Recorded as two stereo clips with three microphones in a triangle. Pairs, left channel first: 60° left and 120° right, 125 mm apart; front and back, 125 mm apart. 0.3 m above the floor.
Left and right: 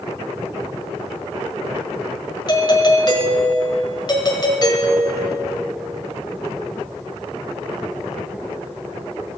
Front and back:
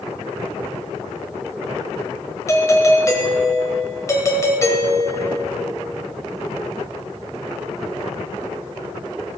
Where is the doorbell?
45° left, 1.6 m.